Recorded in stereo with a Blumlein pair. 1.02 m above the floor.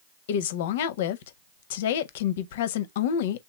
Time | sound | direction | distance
0.3 | a woman speaking | 55° left | 0.6 m